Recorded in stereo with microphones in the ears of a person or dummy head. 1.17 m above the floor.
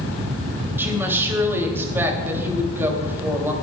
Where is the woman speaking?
15° right (ahead or behind), 2.5 m.